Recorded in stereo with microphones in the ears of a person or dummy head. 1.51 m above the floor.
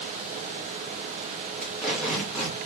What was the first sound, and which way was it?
Tape being pulled, 5° right (ahead or behind).